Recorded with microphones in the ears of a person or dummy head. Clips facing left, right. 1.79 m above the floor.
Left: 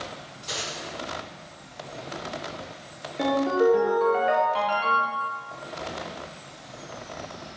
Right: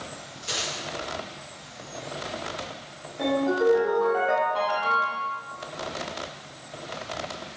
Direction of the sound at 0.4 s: 20° right (ahead or behind).